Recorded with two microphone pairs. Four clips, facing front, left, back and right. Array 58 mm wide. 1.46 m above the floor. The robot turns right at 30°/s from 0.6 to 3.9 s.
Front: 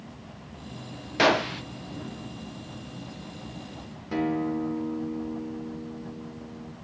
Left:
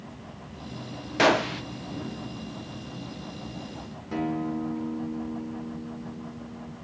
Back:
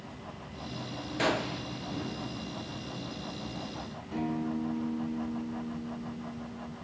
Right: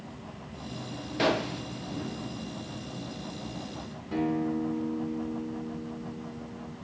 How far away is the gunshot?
About 0.6 m.